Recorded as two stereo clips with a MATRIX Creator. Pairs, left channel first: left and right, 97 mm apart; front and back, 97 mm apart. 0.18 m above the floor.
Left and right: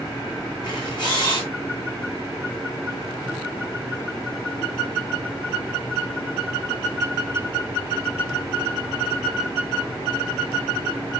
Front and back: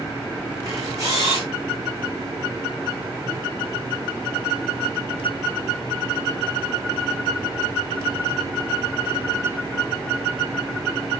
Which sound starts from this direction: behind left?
A camera shutter, at 0.6 s.